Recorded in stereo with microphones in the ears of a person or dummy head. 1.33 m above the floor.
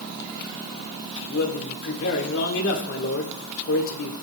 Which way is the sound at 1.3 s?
85° left.